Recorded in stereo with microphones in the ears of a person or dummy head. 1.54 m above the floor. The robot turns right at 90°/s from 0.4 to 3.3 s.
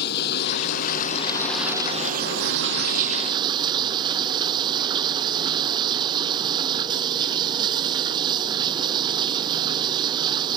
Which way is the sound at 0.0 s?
70° left.